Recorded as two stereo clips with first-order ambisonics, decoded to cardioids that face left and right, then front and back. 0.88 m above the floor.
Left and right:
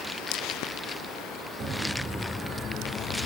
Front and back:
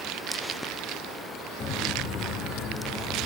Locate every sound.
1.6 s footsteps: 40° right, 1.4 m; by 3.3 s 50° left, 1.9 m